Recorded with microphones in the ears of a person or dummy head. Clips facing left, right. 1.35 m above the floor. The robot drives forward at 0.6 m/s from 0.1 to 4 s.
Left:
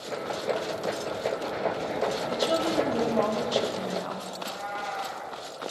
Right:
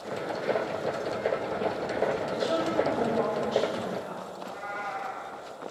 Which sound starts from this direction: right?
A cat meowing, at 4.3 s.